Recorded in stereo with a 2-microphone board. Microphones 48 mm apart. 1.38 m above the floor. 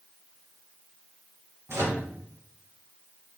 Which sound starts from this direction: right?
A microwave, at 1.7 s.